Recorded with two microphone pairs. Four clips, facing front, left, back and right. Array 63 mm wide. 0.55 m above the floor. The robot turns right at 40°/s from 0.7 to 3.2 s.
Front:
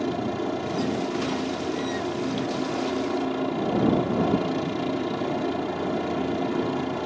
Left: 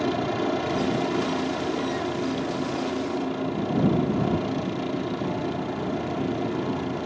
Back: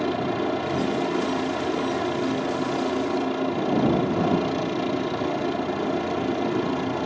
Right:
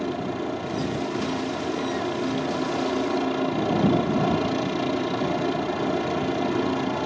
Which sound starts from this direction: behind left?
A helicopter, at 0.0 s.